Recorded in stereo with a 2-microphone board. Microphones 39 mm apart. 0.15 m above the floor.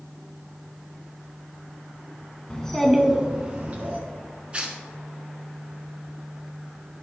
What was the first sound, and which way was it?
A child speaking, 20° left (ahead or behind).